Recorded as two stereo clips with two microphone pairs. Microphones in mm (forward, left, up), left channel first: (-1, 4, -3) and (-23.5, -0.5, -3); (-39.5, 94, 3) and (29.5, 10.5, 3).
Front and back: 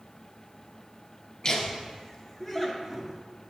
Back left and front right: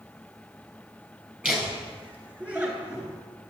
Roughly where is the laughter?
Ahead.